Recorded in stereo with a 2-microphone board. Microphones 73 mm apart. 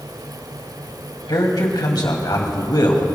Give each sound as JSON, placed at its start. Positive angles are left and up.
{"t": 1.3, "sound": "a man speaking", "side_deg": 80, "distance_m": 2.5}